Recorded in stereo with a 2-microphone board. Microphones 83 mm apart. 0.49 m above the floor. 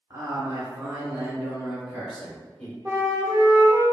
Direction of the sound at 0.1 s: 40° right (ahead or behind).